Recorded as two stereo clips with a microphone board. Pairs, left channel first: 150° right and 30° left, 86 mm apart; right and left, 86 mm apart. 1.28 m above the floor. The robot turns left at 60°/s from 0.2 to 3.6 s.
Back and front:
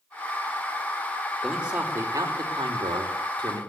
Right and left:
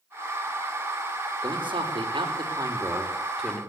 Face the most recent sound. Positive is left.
turn(degrees=-5)